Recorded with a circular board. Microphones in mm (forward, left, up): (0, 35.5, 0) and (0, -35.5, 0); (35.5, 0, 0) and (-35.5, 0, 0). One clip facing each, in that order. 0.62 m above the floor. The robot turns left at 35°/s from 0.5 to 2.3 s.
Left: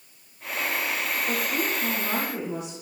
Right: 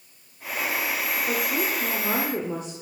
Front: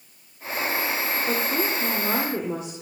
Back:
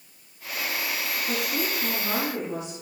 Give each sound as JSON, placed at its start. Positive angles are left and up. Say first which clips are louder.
{"t": 1.3, "sound": "a woman speaking", "louder": "right 1 dB, front 3 dB", "azimuth_deg": -15, "distance_m": 1.8}